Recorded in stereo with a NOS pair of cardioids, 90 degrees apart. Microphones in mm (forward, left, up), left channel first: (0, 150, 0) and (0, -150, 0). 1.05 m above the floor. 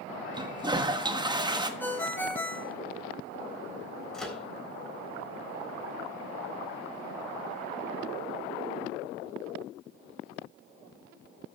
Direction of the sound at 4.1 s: Straight ahead.